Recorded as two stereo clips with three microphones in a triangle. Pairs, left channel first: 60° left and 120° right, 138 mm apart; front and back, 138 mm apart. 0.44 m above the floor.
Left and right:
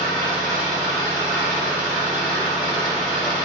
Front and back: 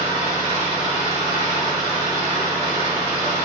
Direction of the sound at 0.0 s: 145° left.